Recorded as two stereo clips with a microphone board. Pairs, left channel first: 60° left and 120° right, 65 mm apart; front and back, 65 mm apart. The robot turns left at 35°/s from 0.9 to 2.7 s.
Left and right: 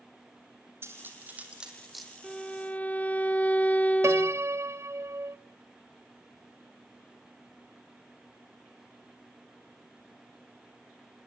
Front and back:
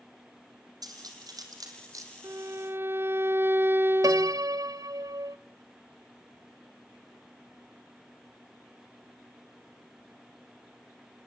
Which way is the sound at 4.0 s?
165° right.